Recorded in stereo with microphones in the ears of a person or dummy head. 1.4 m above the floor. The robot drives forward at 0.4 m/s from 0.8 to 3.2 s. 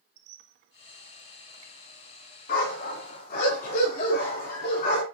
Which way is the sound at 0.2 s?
60° right (ahead or behind).